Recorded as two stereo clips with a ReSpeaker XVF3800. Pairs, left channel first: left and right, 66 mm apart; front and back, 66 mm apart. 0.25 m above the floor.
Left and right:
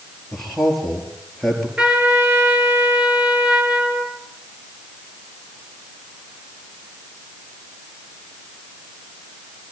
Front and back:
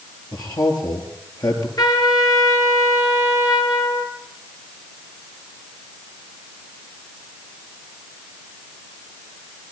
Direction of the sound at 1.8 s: 15° right.